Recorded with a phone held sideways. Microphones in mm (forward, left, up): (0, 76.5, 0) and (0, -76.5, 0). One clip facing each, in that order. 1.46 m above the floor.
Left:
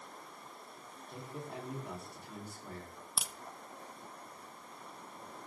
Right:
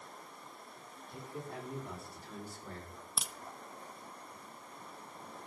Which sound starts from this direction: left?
A man speaking, at 1.1 s.